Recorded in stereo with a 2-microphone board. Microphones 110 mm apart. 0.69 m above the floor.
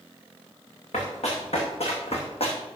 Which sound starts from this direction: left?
Running footsteps, at 0.9 s.